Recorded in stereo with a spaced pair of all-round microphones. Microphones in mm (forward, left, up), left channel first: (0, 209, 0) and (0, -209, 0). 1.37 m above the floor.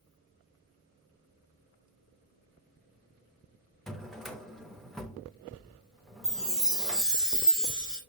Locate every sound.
3.9 s a drawer: centre (ahead or behind), 0.8 m
6.2 s a chime: centre (ahead or behind), 2 m